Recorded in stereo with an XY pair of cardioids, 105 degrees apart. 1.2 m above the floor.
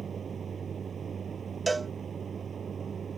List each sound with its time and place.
0.0 s a vehicle: 40° right
1.7 s a cowbell: 20° right